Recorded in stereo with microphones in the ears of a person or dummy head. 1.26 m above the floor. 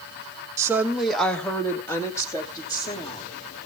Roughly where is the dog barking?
I don't hear a dog barking.